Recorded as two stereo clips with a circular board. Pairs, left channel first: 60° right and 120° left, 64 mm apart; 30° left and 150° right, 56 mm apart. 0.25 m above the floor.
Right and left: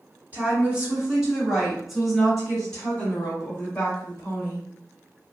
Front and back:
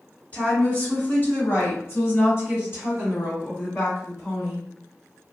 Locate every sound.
0.3 s a woman speaking: 70° left, 1.8 m; by 4.7 s 5° right, 3 m